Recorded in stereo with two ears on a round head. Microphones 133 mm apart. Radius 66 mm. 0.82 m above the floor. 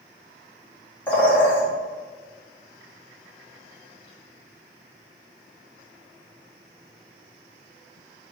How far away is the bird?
About 1.0 m.